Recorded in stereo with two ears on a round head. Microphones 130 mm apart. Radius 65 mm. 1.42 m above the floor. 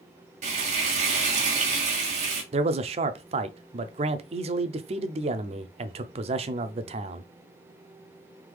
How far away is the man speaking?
About 0.6 m.